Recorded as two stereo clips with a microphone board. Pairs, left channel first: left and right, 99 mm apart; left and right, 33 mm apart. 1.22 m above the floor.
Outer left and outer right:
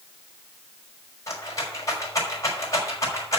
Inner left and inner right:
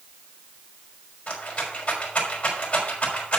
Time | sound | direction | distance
1.3 | a rattle | 35° left (ahead or behind) | 5.5 m